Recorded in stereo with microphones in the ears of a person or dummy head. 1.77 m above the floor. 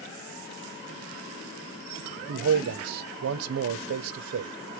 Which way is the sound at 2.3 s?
90° right.